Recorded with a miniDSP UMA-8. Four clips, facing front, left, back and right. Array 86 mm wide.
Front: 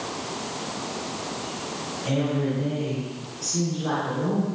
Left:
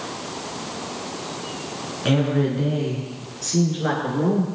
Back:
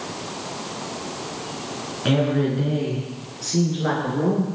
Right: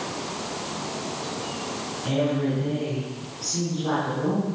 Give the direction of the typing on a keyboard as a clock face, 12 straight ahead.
No typing on a keyboard in this recording.